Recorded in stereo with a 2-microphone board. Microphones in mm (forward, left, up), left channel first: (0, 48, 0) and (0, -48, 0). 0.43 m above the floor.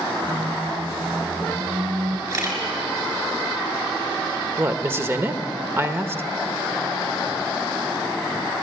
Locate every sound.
0.2 s a squeak: 70° right (ahead or behind), 1.6 m
2.3 s a camera shutter: 35° right (ahead or behind), 5 m
4.6 s a woman speaking: 25° right (ahead or behind), 1.3 m